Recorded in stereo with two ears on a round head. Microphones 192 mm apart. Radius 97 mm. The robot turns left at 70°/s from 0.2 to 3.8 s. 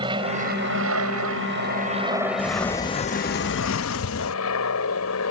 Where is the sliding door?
170° right; by 4.4 s 90° left.